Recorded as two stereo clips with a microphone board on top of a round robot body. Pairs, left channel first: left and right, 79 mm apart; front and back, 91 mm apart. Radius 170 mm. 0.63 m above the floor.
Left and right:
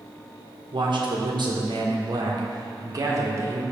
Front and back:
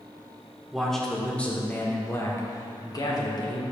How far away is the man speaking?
About 1.8 m.